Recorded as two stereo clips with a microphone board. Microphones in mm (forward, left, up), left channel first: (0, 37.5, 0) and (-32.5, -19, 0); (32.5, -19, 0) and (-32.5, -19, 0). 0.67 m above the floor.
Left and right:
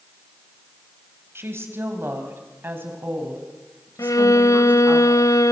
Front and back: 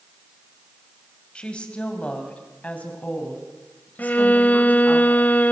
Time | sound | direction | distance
1.4 | a woman speaking | 75° right | 4 m
4.0 | a violin | 60° left | 0.8 m